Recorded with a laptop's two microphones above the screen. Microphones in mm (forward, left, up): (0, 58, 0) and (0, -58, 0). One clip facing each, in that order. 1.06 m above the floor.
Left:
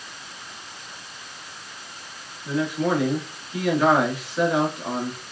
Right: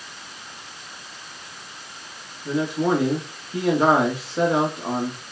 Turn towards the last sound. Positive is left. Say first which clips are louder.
# right 2 dB
turn(degrees=-35)  # may be behind; listen again after turning